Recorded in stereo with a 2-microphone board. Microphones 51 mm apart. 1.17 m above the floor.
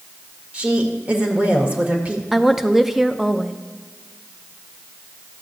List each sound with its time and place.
0.5 s a woman speaking: 25° right (ahead or behind), 1.6 m
2.3 s a woman speaking: 5° right (ahead or behind), 0.5 m